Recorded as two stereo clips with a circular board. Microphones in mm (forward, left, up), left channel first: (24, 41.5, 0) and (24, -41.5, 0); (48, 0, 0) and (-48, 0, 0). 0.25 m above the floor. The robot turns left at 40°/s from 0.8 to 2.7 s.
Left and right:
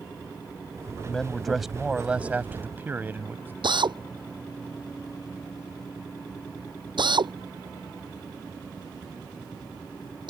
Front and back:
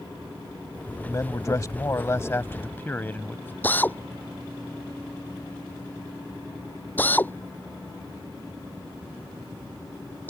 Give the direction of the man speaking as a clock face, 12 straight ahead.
11 o'clock.